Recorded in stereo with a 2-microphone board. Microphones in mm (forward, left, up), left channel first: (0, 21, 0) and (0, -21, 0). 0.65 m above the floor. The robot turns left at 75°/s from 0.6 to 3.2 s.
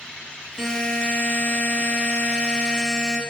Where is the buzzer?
165° left, 0.9 m; by 3.2 s 30° right, 0.9 m.